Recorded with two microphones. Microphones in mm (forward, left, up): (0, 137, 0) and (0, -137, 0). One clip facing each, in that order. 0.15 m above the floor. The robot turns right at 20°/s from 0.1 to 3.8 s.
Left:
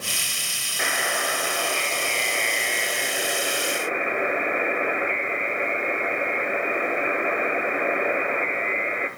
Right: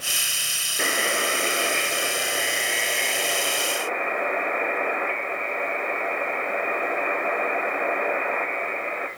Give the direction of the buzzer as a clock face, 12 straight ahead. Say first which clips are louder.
Right 3 dB; 1 o'clock.